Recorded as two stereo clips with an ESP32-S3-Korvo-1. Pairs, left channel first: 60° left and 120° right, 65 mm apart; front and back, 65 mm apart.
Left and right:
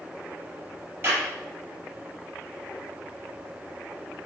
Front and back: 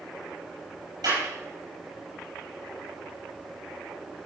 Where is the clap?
Straight behind, 6 m.